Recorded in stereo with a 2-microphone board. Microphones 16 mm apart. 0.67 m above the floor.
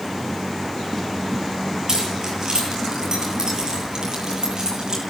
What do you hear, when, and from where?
1.9 s keys jangling: 40° right (ahead or behind), 8.5 m; by 5.0 s 45° right (ahead or behind), 10.5 m